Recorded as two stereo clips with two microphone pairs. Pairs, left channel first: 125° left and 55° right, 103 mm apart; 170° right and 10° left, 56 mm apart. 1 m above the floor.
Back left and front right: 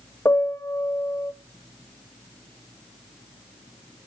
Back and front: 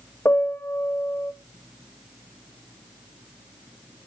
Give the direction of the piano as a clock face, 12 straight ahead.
6 o'clock.